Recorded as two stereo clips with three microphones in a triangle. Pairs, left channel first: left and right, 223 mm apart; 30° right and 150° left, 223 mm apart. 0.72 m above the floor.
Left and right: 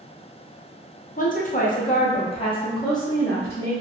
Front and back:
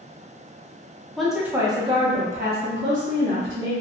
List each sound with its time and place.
1.2 s a woman speaking: 55° left, 0.7 m; by 3.7 s 165° left, 1.2 m